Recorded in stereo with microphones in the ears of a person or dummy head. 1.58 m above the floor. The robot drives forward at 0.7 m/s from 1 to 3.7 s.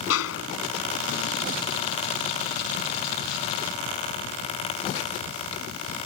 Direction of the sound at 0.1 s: 80° left.